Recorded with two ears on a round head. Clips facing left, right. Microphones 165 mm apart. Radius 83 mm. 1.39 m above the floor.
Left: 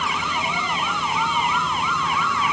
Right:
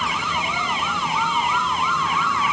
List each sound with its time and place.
Only background noise.